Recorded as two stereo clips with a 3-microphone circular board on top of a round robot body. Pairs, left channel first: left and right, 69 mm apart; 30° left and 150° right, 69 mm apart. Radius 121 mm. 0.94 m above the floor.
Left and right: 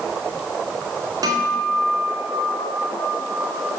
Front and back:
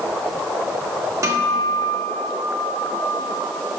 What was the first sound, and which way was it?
A guitar, 110° right.